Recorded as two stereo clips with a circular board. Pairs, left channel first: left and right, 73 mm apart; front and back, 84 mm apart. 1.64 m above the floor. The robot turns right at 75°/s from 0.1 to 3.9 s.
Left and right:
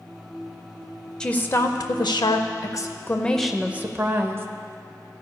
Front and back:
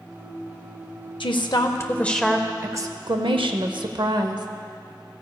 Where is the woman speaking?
10° left, 0.6 m; by 4.5 s 145° right, 0.6 m.